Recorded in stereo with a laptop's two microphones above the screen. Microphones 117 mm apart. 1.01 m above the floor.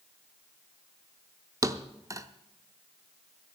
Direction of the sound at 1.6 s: 30° right (ahead or behind).